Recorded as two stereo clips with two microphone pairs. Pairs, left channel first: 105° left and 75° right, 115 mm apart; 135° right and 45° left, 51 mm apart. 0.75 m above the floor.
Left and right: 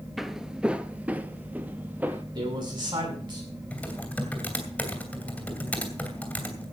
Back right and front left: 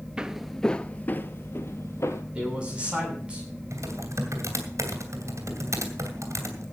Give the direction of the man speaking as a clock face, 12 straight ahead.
1 o'clock.